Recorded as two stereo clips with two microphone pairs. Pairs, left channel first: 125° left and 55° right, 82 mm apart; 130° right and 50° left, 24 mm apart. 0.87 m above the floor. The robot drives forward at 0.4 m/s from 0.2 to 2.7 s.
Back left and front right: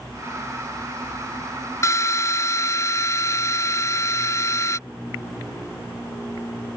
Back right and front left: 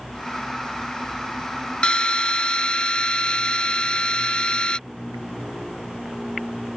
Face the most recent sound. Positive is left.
turn(degrees=180)